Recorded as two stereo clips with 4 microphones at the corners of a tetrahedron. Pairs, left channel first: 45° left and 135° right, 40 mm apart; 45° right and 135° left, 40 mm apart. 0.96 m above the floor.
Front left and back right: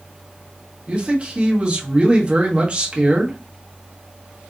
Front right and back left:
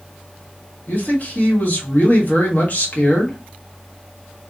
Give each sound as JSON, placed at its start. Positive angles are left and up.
{"t": 0.9, "sound": "a man speaking", "azimuth_deg": -80, "distance_m": 1.1}